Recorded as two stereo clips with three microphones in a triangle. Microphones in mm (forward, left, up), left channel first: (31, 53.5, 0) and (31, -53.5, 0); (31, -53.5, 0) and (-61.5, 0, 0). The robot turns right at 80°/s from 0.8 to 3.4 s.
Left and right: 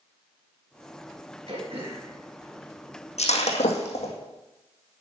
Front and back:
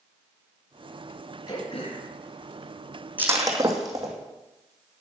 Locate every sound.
1.5 s throat clearing: 85° right, 3 m; by 3.3 s 65° left, 3 m
3.2 s breaking glass: 75° left, 1.9 m; by 4.1 s 90° left, 1.9 m